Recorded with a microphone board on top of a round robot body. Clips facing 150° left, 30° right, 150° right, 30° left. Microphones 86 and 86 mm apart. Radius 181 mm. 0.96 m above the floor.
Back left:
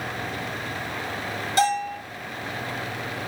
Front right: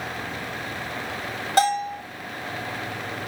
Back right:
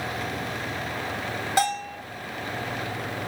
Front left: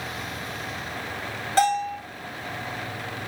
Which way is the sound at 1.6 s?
70° right.